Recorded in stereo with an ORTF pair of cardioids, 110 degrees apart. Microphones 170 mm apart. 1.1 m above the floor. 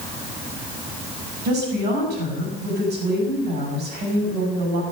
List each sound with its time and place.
1.4 s a woman speaking: 70° right, 6.5 m